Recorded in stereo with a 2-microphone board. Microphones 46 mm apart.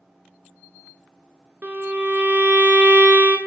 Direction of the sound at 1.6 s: 35° right (ahead or behind).